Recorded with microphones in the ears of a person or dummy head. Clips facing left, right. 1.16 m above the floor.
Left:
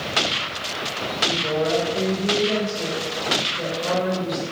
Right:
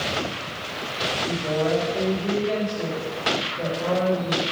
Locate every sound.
1.2 s a woman speaking: centre (ahead or behind), 4 m